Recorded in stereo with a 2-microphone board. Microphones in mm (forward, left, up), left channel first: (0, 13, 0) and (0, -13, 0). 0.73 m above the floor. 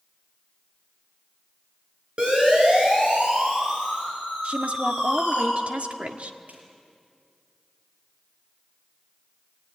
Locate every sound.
2.2 s a siren: 40° right (ahead or behind), 9.5 m; by 5.4 s 55° right (ahead or behind), 9 m
4.4 s a woman speaking: 60° right (ahead or behind), 1.6 m
6.5 s a snare drum: 85° right, 5.5 m